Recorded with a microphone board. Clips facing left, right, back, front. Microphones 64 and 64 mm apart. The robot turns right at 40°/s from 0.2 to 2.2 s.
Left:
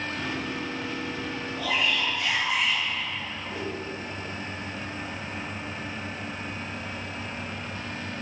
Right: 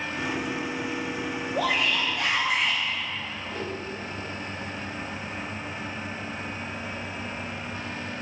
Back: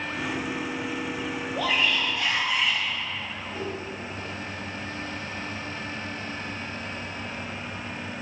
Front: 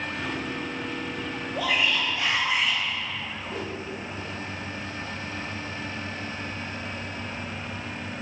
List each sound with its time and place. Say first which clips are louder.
1.6 s a shout: right 2 dB, even; 85° right, 4 m; by 2.8 s 60° right, 4 m
3.5 s a whoosh: even, back 1 dB; 5° left, 4 m